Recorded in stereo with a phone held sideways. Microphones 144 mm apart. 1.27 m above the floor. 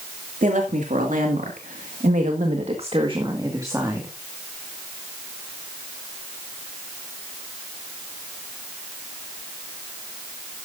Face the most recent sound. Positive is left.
turn(degrees=-15)  # may be behind; listen again after turning